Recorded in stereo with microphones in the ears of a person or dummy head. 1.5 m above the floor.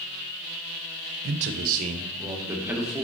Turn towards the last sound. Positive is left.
turn(degrees=0)  # may be behind; listen again after turning